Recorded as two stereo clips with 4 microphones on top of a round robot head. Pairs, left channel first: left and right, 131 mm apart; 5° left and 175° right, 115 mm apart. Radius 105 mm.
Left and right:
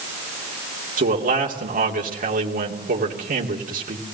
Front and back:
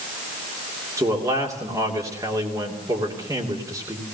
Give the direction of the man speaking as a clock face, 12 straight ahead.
4 o'clock.